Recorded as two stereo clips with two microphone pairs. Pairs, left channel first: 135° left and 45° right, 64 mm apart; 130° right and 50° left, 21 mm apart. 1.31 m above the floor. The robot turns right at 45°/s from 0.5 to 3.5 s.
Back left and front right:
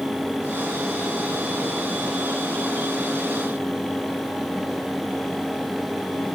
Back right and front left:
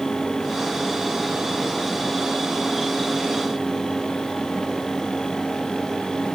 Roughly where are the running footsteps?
I don't hear running footsteps.